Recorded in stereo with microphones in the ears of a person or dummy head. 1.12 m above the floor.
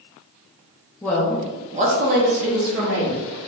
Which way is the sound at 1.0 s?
15° left (ahead or behind).